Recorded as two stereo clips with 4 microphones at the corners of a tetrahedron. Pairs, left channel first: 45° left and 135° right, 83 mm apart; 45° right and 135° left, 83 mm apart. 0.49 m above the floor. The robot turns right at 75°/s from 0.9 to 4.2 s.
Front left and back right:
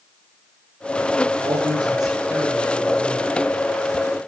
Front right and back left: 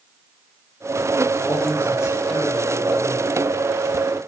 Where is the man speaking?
145° right, 7.5 m; by 3.4 s 5° left, 7.5 m.